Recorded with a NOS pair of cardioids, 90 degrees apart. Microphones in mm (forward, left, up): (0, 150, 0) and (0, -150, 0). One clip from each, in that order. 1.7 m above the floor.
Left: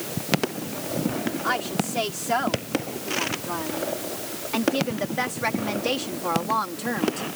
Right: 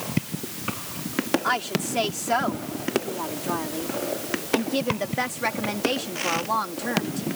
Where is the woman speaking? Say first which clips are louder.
Right 1 dB; 25° right; by 7.2 s 15° left.